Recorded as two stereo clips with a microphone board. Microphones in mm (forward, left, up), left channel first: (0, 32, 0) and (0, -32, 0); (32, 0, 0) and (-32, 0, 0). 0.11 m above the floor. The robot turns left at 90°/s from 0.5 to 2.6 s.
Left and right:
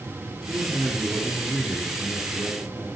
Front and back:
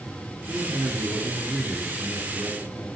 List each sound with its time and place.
0.5 s a man speaking: 120° right, 3.5 m; by 2.9 s 50° left, 3.5 m